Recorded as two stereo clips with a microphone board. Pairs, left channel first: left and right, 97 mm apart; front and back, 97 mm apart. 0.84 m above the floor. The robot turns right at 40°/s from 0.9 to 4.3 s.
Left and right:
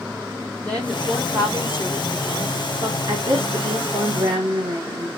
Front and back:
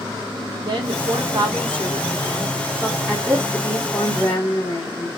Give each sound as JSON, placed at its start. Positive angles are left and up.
{"t": 0.7, "sound": "a woman speaking", "azimuth_deg": 170, "distance_m": 1.7}
{"t": 3.1, "sound": "a woman speaking", "azimuth_deg": -110, "distance_m": 1.3}